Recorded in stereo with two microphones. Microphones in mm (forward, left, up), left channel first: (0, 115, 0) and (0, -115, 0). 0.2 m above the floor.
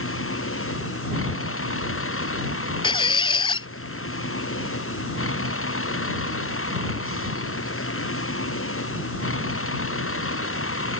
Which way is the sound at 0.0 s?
65° left (ahead or behind).